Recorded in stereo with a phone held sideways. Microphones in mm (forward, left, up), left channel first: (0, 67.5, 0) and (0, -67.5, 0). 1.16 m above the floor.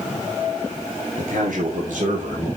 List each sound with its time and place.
1.2 s a man speaking: 90° right, 2.5 m; by 2.5 s 70° right (ahead or behind), 3.5 m